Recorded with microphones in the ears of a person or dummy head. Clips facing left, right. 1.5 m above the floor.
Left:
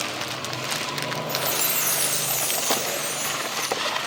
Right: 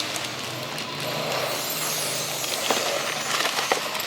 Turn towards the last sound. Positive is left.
turn(degrees=20)  # may be behind; listen again after turning